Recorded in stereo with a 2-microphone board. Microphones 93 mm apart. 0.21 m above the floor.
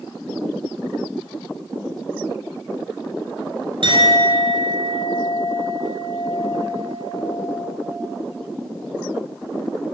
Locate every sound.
3.8 s a clink: 60° right (ahead or behind), 1.6 m